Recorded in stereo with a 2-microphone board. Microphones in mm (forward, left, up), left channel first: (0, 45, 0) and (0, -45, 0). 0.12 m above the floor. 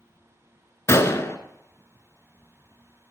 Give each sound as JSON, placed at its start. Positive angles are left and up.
{"t": 0.9, "sound": "a gunshot", "side_deg": 30, "distance_m": 0.7}